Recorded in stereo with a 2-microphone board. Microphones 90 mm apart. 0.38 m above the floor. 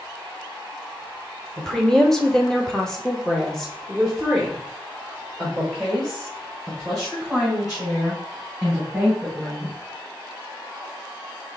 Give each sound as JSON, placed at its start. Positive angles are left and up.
{"t": 1.6, "sound": "a woman speaking", "side_deg": 5, "distance_m": 1.1}